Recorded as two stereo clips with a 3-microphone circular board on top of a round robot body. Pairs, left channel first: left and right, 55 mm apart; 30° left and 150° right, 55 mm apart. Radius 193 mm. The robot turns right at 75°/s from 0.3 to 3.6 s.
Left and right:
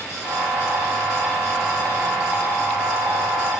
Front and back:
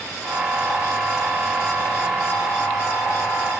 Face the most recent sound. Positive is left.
No sound to turn to.